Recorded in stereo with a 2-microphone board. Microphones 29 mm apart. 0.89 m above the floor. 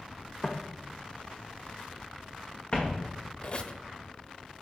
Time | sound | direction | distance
0.4 | footsteps | 35° left (ahead or behind) | 1.7 m
3.4 | a squeak | 40° left (ahead or behind) | 1.0 m